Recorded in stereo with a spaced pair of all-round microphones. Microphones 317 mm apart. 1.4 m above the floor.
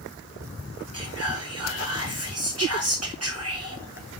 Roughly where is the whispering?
Right.